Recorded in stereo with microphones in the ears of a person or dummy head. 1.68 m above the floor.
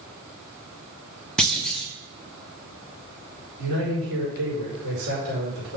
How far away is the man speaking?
About 5 m.